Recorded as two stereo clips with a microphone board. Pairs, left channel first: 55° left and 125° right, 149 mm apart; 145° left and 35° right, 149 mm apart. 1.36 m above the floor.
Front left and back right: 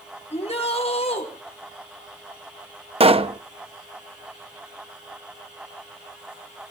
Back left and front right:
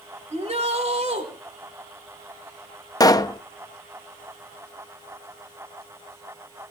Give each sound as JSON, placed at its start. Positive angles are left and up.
{"t": 0.3, "sound": "a shout", "azimuth_deg": 10, "distance_m": 4.5}
{"t": 3.0, "sound": "a pop", "azimuth_deg": -155, "distance_m": 0.8}